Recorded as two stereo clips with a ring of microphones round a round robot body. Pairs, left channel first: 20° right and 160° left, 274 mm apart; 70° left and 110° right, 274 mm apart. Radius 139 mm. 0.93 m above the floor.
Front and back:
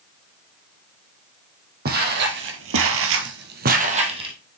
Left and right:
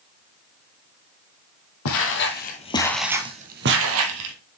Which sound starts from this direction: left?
Footsteps, at 1.9 s.